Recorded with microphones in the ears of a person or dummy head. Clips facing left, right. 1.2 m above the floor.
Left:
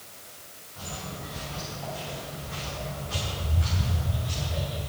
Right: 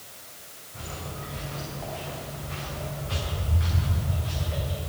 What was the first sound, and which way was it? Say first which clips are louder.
Footsteps: right 1 dB; 60° right (ahead or behind).